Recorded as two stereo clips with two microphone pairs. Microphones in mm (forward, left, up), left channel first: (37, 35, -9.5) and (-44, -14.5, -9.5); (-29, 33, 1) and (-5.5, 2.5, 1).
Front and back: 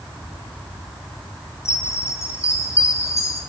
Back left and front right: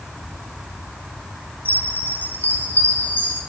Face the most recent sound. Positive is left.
turn(degrees=90)